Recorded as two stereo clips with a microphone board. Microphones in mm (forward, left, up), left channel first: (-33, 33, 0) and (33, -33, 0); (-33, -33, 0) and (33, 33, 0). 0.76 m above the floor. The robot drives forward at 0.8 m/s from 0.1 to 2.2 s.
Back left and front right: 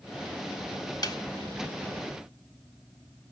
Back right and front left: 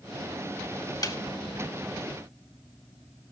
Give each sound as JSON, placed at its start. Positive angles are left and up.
{"t": 1.0, "sound": "a snare drum", "azimuth_deg": 180, "distance_m": 1.7}